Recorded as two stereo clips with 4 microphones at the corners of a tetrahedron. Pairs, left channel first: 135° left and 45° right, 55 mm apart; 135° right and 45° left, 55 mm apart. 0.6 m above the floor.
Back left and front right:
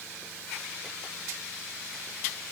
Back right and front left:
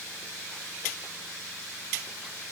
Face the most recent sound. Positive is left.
No sound to turn to.